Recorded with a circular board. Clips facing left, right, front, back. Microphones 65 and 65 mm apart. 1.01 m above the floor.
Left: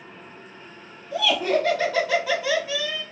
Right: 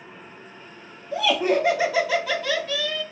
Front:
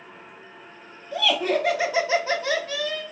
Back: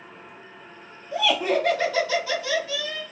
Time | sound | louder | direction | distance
1.1 | laughter | right 1 dB, back 1 dB | 125° right | 0.6 m